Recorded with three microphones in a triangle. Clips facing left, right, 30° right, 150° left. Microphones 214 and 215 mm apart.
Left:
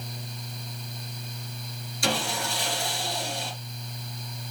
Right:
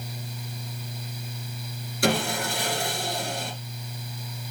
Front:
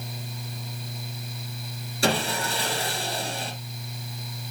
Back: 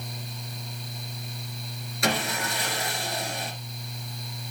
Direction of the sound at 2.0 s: 85° right.